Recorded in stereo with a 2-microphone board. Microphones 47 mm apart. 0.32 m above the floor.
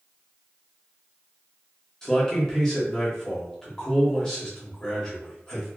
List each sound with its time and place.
2.0 s a man speaking: 10° left (ahead or behind), 1.0 m